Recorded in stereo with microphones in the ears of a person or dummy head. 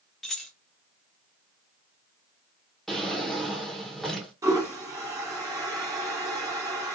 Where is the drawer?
Centre (ahead or behind), 0.6 m.